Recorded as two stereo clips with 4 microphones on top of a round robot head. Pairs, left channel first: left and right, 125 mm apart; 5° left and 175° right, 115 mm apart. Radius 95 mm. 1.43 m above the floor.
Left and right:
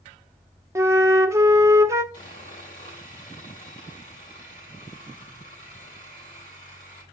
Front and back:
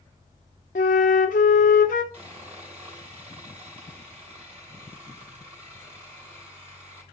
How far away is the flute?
About 0.7 m.